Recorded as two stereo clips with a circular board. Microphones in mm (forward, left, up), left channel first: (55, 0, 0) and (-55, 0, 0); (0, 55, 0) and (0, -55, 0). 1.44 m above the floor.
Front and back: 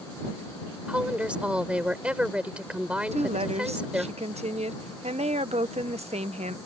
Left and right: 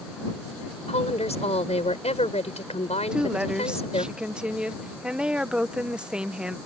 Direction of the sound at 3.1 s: 170° right.